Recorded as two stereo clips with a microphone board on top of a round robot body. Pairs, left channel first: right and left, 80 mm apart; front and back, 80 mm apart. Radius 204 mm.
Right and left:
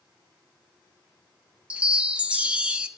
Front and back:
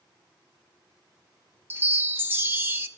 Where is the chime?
150° left, 1.3 m.